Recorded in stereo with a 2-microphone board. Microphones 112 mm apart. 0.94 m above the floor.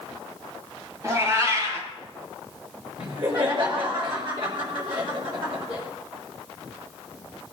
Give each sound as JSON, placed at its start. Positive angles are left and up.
{"t": 1.0, "sound": "a cat meowing", "side_deg": -25, "distance_m": 3.0}
{"t": 3.0, "sound": "laughter", "side_deg": -50, "distance_m": 5.0}